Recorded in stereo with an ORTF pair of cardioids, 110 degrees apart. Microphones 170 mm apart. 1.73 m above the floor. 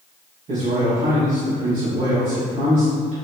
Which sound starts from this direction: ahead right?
A man speaking, at 0.5 s.